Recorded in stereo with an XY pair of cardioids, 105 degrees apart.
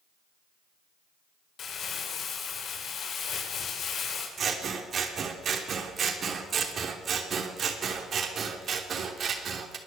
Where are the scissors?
50° right, 3 m.